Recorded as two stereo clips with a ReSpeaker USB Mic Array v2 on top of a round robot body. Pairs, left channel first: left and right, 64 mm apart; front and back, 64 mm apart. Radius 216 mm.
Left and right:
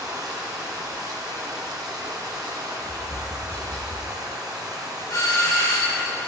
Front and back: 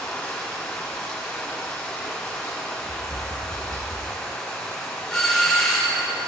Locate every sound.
0.0 s running water: 70° right, 1.1 m
2.8 s tapping: 155° left, 1.5 m
5.1 s a doorbell: 85° left, 2.0 m